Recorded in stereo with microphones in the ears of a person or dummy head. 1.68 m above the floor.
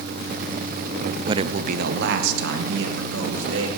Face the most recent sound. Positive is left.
turn(degrees=-80)